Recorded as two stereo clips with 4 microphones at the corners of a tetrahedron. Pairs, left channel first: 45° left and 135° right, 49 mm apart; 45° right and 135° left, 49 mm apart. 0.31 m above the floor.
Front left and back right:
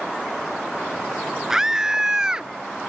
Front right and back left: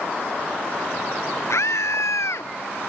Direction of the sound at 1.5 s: 55° right.